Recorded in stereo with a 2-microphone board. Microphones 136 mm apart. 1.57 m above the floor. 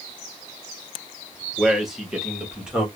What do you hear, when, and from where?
1.6 s a man speaking: centre (ahead or behind), 1.9 m; by 2.9 s 5° right (ahead or behind), 2.5 m